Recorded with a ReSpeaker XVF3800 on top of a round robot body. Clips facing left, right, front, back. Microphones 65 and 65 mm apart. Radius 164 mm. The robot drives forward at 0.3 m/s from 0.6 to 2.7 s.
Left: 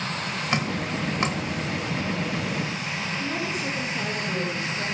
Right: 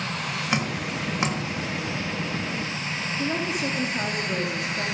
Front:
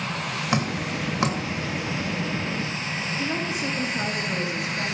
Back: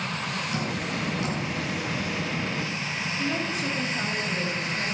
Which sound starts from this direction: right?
A woman speaking, at 3.2 s.